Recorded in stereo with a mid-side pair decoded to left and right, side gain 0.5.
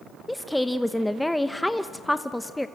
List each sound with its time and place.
0.3 s a woman speaking: 10° left, 0.8 m